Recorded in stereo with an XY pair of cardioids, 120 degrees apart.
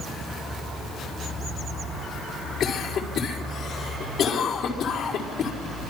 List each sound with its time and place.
2.6 s a cough: 60° left, 4.5 m